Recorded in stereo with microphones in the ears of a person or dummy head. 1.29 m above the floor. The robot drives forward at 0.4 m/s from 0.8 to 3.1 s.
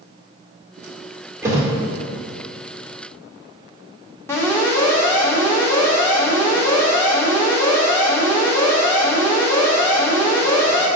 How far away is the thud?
About 1.9 m.